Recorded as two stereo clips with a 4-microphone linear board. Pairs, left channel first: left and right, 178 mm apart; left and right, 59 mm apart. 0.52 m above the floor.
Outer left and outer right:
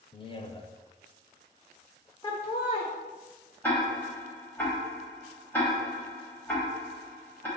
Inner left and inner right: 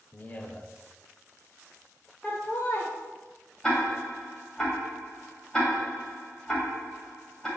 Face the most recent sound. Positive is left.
turn(degrees=10)  # may be behind; listen again after turning